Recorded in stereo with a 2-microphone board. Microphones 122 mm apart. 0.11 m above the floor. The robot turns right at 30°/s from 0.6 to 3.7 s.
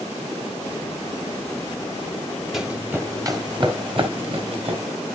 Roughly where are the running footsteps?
Centre.